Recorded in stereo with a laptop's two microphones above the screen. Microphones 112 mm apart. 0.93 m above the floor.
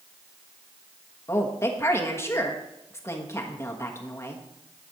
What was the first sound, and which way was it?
A woman speaking, 25° left (ahead or behind).